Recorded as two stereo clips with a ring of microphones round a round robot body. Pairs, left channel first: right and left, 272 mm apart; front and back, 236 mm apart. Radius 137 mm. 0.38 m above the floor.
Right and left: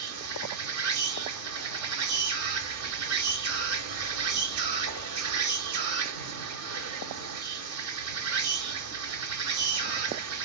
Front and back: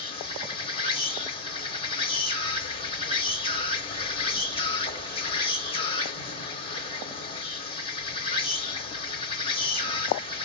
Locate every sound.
0.0 s an insect: 65° left, 1.1 m